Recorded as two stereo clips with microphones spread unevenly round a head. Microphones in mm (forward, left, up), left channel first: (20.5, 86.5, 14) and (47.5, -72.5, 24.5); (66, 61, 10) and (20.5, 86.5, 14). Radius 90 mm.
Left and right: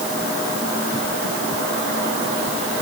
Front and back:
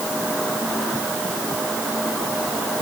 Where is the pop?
I don't hear a pop.